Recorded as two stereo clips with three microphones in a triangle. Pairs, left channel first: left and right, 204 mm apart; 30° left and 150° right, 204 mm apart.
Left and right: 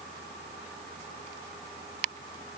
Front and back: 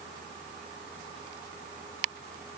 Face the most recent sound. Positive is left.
No sound to turn to.